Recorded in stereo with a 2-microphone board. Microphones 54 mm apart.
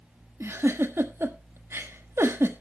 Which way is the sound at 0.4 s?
50° right (ahead or behind).